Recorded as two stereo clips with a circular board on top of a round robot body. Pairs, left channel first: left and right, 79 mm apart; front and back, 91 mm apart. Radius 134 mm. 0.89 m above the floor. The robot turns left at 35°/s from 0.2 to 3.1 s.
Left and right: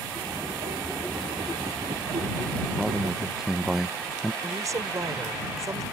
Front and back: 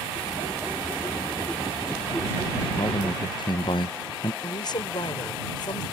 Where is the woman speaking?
40° right.